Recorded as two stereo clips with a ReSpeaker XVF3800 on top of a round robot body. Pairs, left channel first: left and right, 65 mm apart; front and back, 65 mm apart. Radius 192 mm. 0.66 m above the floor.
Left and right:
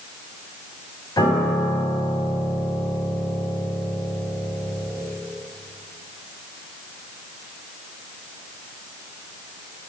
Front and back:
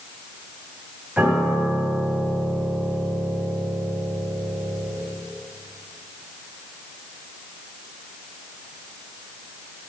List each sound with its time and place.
1.2 s a piano: 110° left, 5 m